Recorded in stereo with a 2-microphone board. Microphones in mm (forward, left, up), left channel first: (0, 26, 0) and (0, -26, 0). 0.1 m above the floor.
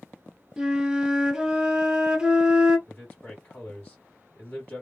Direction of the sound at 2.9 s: 30° left (ahead or behind).